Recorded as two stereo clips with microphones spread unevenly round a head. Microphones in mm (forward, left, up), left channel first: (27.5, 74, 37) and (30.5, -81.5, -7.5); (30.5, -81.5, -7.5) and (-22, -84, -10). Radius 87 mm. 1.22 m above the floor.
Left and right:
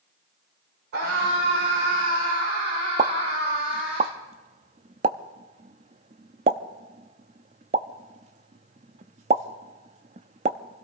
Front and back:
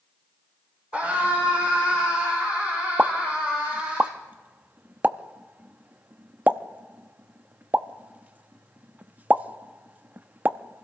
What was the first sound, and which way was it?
A scream, 115° right.